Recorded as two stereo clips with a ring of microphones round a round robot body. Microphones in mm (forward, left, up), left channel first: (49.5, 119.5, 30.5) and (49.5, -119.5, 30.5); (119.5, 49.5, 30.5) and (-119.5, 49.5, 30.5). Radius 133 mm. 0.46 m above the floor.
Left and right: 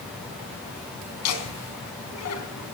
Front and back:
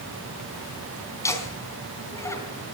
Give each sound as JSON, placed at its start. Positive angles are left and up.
{"t": 1.2, "sound": "laughter", "azimuth_deg": 80, "distance_m": 4.5}